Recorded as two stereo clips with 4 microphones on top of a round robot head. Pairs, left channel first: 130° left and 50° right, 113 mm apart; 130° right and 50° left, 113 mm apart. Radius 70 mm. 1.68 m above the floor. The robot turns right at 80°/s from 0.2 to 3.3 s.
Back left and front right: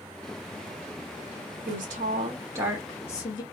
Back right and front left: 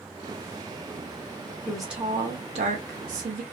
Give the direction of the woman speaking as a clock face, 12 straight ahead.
2 o'clock.